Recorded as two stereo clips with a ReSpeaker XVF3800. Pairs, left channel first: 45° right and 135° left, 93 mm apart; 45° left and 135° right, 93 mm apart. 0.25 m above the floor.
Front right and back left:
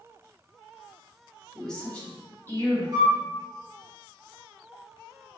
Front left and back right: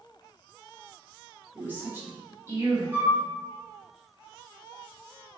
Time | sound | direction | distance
1.6 | a woman speaking | 120° right | 1.2 m
2.9 | a flute | 160° left | 1.0 m